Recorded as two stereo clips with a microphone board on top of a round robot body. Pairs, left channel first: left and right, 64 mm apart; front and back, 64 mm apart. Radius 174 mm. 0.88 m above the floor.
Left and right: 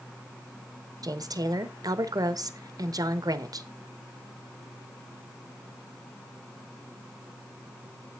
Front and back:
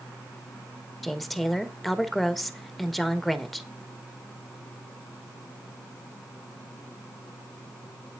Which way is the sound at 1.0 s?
90° right.